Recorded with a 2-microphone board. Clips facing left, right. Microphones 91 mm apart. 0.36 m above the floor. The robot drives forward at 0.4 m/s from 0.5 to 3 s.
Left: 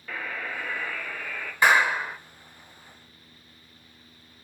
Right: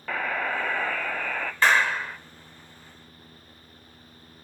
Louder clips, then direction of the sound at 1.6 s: Left 1 dB; 10° left (ahead or behind).